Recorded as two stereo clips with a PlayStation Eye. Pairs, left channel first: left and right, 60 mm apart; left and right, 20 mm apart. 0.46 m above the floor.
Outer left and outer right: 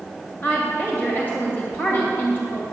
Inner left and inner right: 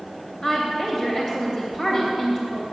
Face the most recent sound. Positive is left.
turn(degrees=35)  # may be behind; listen again after turning